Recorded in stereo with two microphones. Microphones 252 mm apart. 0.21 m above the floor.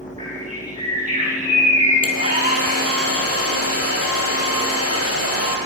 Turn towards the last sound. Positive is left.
turn(degrees=65)  # may be behind; listen again after turning